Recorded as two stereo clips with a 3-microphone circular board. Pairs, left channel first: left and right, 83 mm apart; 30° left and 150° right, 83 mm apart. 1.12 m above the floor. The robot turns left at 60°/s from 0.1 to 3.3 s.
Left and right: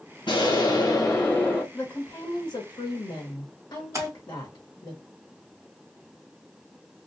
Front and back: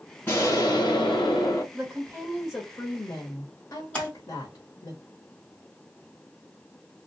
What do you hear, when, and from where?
0.3 s an explosion: 90° left, 1.1 m; by 1.6 s 10° left, 1.1 m
1.7 s a woman speaking: 150° left, 0.9 m; by 4.9 s 55° left, 0.9 m
3.9 s a splash: 45° right, 1.5 m